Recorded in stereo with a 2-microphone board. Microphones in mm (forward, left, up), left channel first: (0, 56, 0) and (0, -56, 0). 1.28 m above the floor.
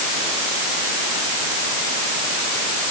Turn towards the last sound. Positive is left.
No sound to turn to.